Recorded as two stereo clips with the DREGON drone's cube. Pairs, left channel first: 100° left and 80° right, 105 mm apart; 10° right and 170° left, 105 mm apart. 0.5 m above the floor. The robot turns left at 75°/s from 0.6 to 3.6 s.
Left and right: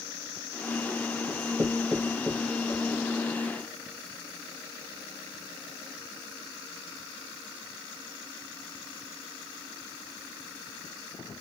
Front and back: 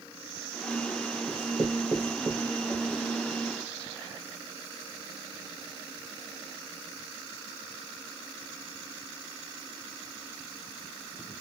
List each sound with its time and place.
1.3 s writing: 115° right, 2.5 m; by 3.0 s 115° left, 2.5 m